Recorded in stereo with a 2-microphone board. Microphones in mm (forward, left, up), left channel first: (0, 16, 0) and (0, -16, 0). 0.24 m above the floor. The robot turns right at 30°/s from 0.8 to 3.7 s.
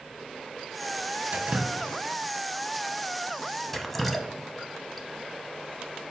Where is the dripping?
45° right (ahead or behind), 0.6 m; by 5.1 s 5° left (ahead or behind), 0.6 m.